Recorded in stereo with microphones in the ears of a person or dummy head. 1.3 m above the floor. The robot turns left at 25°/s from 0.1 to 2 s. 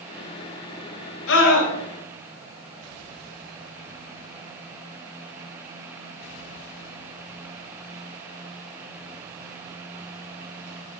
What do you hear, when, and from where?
1.3 s a scream: 80° left, 6.5 m; by 1.7 s 70° left (ahead or behind), 6.5 m